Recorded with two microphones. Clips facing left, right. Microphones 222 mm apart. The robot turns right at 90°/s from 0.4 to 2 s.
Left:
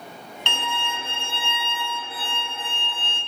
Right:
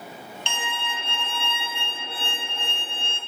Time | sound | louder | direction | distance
0.5 | a violin | left 4 dB | 75° left | 0.7 m